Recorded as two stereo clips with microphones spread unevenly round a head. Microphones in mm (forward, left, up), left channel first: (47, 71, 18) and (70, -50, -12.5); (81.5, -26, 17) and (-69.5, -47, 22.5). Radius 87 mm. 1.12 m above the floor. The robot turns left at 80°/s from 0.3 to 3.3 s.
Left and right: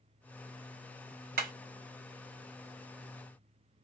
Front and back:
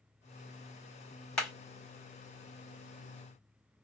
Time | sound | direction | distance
1.4 | hammering | 75° right | 1.9 m